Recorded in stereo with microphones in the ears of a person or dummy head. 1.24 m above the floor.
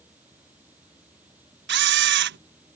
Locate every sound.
0.0 s running water: 10° right (ahead or behind)
1.7 s a camera shutter: 50° right (ahead or behind)